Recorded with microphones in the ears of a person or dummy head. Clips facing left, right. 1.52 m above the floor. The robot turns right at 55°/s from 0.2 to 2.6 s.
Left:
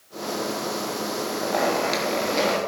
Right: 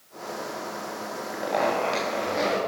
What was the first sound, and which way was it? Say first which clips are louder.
A zipper: left 1 dB; 5° right.